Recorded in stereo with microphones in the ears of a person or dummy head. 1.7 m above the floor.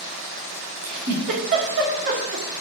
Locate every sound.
0.8 s a giggle: 40° right (ahead or behind), 1.8 m